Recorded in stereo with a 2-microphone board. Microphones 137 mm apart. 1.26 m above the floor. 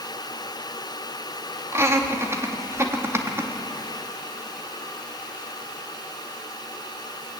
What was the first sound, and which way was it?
Laughter, 20° right (ahead or behind).